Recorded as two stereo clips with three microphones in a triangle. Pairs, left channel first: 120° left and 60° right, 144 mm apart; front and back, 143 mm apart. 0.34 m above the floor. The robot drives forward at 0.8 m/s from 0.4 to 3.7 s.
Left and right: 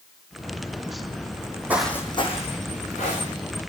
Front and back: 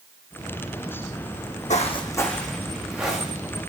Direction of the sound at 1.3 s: 15° right.